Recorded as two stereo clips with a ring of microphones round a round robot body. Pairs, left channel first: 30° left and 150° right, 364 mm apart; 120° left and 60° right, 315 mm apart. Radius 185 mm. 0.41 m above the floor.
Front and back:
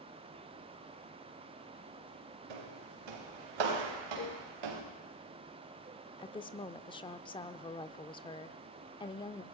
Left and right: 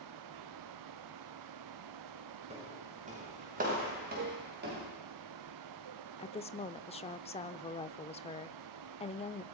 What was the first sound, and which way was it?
Footsteps, 135° right.